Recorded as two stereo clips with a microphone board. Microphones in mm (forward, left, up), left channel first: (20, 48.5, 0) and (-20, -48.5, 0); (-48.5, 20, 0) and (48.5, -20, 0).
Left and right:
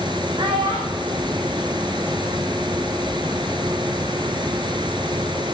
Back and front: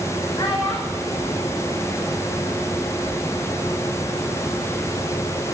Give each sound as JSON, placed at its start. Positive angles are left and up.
{"t": 0.4, "sound": "a child speaking", "azimuth_deg": -155, "distance_m": 6.0}